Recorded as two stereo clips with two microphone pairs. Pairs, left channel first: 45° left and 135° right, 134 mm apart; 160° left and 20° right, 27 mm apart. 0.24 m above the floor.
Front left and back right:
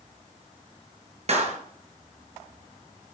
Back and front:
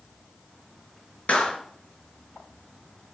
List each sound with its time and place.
1.3 s a clap: 170° right, 3 m